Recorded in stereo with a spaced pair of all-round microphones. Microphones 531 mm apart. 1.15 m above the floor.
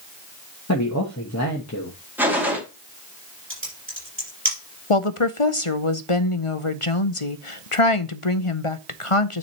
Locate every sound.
0.7 s a man speaking: 30° left (ahead or behind), 1.1 m
2.2 s a gunshot: 5° right (ahead or behind), 1.8 m
3.5 s typing on a keyboard: 20° right (ahead or behind), 4 m
4.9 s a woman speaking: 70° left (ahead or behind), 0.7 m